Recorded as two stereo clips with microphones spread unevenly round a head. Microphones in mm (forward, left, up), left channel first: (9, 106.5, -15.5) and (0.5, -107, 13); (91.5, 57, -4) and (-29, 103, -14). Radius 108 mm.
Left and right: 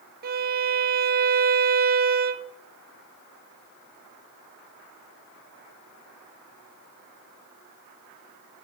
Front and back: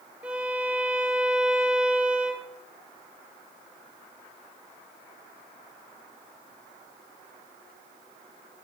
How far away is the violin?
About 0.6 m.